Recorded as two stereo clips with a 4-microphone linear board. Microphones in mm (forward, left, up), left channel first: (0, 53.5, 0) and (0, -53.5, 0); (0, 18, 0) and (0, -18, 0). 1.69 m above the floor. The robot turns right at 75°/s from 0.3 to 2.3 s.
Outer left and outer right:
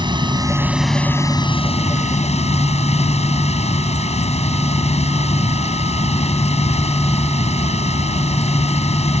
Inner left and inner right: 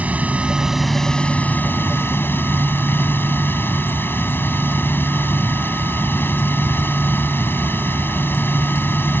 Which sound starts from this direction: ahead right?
Running water, at 0.0 s.